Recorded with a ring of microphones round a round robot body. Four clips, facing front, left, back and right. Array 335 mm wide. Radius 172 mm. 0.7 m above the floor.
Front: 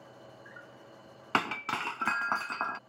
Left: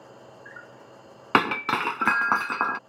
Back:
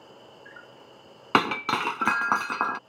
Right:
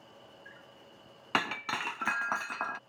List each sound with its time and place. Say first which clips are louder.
0.0 s an insect: left 8 dB, back 2 dB; 135° left
1.3 s breaking glass: left 10 dB, back 8 dB; 130° left